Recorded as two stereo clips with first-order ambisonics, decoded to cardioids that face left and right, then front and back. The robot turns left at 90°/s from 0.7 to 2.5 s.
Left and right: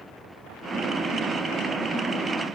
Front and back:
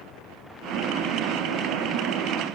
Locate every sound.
Only background noise.